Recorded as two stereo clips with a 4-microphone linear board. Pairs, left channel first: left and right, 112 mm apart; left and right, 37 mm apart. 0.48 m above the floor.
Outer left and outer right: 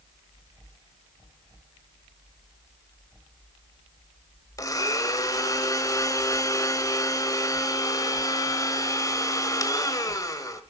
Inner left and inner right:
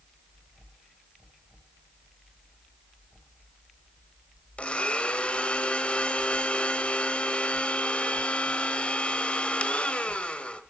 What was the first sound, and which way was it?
A blender, 30° left (ahead or behind).